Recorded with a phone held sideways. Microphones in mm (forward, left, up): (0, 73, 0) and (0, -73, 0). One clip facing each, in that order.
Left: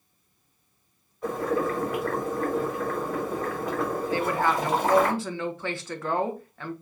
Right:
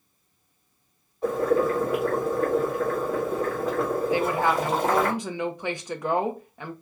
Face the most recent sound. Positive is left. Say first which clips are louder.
# right 1 dB
turn(degrees=-15)  # may be behind; listen again after turning